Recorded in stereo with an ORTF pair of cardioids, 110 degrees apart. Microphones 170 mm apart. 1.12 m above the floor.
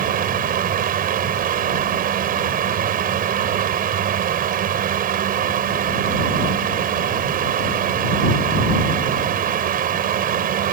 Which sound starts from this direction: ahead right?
A fan, at 0.0 s.